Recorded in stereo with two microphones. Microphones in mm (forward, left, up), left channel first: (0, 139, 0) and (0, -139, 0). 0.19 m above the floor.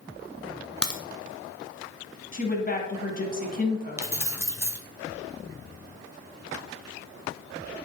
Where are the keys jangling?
10° right (ahead or behind), 0.8 m.